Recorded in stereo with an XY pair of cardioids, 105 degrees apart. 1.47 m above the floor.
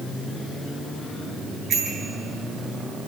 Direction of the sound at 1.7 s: 65° right.